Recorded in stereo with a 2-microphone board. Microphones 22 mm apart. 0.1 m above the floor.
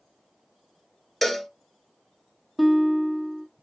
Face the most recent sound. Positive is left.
turn(degrees=-15)  # may be behind; listen again after turning